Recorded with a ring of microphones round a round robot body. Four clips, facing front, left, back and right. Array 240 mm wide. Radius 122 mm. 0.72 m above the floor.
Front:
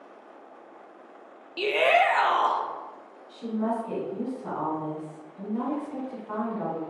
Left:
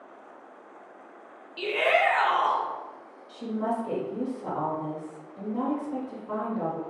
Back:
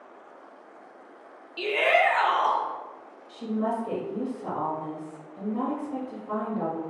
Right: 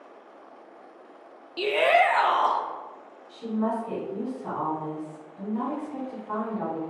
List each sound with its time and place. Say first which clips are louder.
1.6 s a shout: right 3 dB, front 1 dB; 50° right, 0.6 m
3.3 s a woman speaking: right 2 dB, even; 130° left, 1.9 m